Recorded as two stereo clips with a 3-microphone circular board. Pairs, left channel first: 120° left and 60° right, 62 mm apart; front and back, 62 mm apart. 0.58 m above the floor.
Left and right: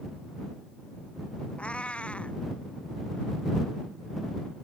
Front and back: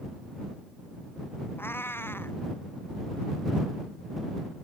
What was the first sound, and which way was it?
A cat meowing, 50° left.